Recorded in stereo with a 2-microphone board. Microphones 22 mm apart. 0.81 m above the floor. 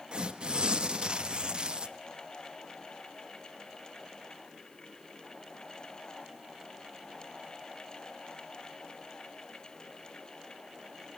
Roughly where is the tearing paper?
Right.